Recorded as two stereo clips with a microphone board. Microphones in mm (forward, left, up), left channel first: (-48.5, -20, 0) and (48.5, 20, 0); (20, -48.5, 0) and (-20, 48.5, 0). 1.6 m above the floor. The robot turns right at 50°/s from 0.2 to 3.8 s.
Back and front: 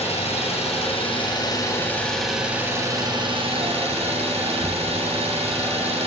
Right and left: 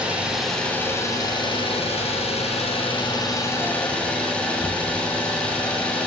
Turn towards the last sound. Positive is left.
turn(degrees=10)